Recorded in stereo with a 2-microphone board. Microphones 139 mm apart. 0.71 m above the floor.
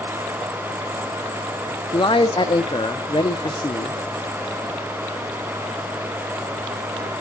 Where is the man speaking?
35° left (ahead or behind), 0.9 m.